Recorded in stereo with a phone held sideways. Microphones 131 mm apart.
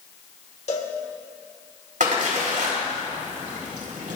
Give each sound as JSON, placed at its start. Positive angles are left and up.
{"t": 0.7, "sound": "a cowbell", "side_deg": 55, "distance_m": 1.5}
{"t": 2.0, "sound": "a splash", "side_deg": -80, "distance_m": 4.0}